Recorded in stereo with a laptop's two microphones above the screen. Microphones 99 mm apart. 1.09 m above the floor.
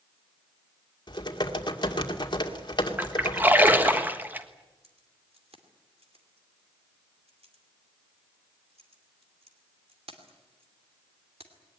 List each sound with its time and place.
1.1 s typing on a keyboard: 45° left (ahead or behind), 2 m
3.0 s a splash: 20° right (ahead or behind), 1.3 m
4.8 s keys jangling: 80° right, 2.5 m